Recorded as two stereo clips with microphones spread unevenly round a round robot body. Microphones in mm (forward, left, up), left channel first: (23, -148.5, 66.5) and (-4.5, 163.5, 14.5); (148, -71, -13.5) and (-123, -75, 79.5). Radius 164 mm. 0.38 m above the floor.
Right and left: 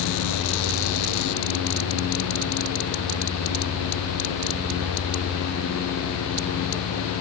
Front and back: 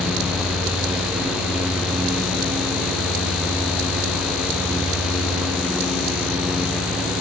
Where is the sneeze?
No sneeze in this recording.